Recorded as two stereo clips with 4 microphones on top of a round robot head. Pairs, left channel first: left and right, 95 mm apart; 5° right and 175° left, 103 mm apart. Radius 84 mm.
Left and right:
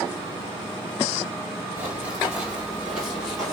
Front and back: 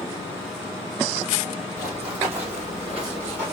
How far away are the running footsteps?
About 2.5 m.